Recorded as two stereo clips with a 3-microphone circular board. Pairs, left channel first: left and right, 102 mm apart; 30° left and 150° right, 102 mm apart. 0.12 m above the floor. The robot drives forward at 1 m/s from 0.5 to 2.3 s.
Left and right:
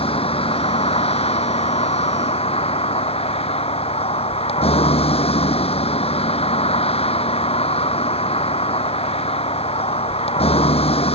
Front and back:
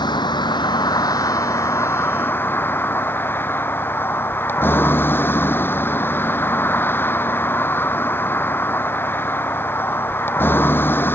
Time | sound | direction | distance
0.0 | a vehicle | 75° left | ?